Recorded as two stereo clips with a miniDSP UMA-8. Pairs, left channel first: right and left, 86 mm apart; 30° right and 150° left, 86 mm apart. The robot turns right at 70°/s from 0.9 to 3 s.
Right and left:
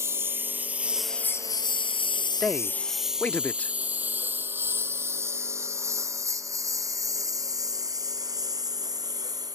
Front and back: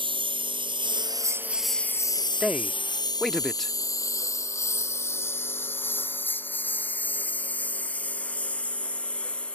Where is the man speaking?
155° right; by 3.7 s 115° right.